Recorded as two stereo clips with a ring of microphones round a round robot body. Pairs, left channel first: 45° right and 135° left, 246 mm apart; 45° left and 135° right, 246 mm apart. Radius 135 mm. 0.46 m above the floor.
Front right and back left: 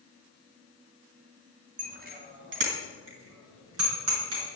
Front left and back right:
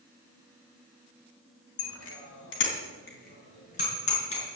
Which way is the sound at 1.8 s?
75° left.